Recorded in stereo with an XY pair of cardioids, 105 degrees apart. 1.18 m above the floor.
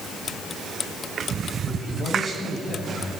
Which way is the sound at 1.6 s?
30° right.